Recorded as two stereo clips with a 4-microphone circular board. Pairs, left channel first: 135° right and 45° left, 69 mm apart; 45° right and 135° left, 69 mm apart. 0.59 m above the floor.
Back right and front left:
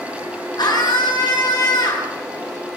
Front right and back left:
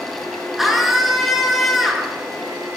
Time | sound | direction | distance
0.6 | a scream | 140° right | 7 m